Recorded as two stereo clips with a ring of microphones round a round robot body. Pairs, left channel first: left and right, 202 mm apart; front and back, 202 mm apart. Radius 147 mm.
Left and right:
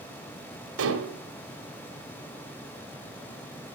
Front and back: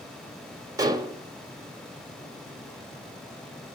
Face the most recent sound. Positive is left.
turn(degrees=-110)